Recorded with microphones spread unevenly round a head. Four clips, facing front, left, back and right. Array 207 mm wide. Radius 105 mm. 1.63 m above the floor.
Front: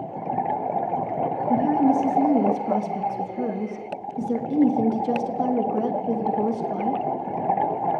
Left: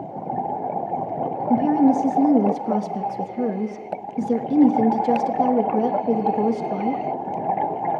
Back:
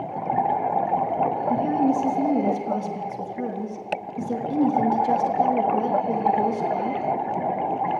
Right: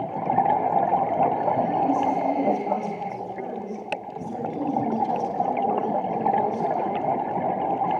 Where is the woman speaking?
80° left, 3 m.